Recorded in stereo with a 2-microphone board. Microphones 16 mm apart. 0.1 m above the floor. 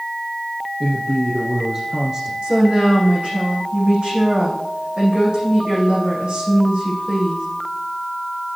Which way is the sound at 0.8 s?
25° right (ahead or behind).